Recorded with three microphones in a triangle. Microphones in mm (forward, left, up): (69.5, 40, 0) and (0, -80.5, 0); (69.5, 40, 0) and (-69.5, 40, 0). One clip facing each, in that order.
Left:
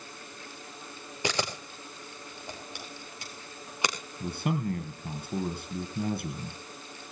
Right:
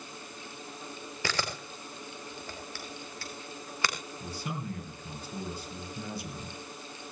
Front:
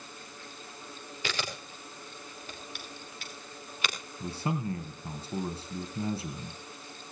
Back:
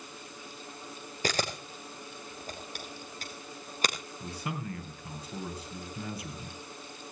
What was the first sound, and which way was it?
A camera shutter, 130° left.